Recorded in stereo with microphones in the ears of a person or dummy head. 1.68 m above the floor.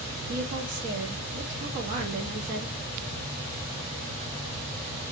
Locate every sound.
0.3 s a woman speaking: 45° right (ahead or behind), 0.8 m